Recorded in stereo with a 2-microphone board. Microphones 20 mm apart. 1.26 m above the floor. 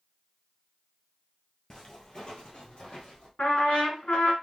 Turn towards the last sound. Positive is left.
turn(degrees=65)  # may be behind; listen again after turning